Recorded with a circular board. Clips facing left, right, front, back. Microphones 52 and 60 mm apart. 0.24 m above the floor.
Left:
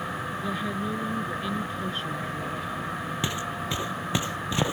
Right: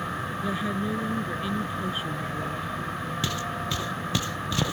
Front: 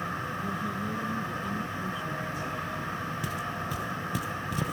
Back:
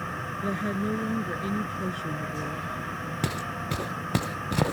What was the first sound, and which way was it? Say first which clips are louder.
A woman speaking: right 2 dB, back 8 dB; 175° right.